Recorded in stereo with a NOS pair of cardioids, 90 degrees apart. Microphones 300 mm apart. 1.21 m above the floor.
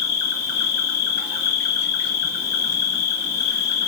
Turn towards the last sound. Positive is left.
turn(degrees=60)